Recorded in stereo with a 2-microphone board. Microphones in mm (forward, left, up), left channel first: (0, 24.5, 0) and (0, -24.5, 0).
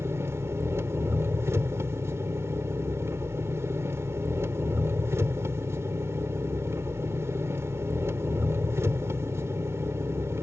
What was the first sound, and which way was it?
An engine running, 75° right (ahead or behind).